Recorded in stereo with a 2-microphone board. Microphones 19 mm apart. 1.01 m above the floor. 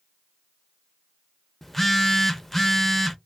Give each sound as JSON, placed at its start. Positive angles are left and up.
{"t": 1.6, "sound": "a phone buzzing", "side_deg": 15, "distance_m": 0.5}